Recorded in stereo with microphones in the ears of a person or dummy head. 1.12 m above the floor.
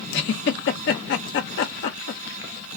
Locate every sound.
0.1 s a giggle: 55° left (ahead or behind), 1.0 m